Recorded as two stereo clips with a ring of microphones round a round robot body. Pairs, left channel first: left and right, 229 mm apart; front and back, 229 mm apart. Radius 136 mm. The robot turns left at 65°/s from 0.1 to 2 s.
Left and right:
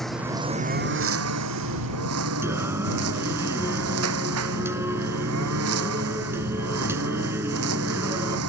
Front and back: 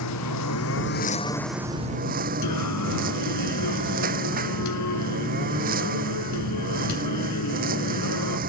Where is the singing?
10° right.